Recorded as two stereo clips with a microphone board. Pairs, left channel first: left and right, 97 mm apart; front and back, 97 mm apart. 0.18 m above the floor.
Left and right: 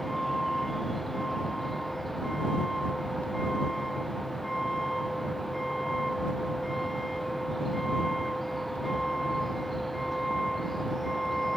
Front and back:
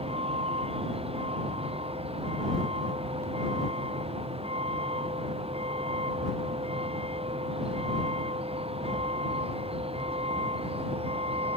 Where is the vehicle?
Straight behind.